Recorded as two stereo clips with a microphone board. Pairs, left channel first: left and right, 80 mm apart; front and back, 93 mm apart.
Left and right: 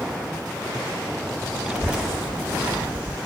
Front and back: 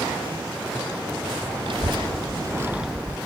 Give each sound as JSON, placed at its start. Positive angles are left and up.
{"t": 1.6, "sound": "a child speaking", "azimuth_deg": -170, "distance_m": 1.2}